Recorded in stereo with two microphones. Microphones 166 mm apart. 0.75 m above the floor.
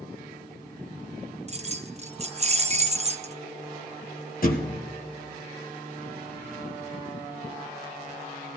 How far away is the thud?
About 1.7 m.